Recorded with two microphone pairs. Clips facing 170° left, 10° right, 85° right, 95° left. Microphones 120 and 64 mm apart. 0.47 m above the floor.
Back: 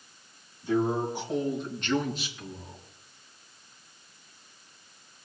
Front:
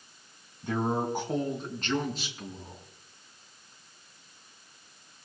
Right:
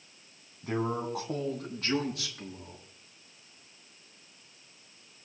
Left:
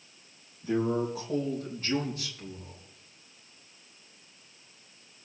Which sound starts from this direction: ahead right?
A man speaking, at 0.6 s.